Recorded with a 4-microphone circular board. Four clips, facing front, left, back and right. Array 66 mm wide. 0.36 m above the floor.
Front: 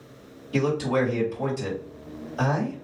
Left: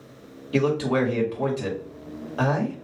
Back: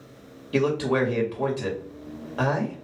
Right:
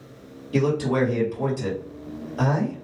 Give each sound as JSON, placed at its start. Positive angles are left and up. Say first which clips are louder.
{"t": 0.5, "sound": "a man speaking", "louder": "even, back 1 dB", "azimuth_deg": 145, "distance_m": 1.8}